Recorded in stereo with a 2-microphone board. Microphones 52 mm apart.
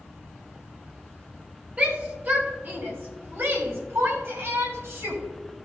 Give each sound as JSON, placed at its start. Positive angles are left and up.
{"t": 1.8, "sound": "a shout", "side_deg": -30, "distance_m": 1.9}